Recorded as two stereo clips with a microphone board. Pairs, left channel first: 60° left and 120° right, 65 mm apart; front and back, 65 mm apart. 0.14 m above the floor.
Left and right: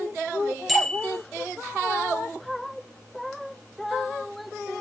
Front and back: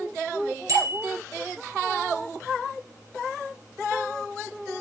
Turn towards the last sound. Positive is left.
turn(degrees=150)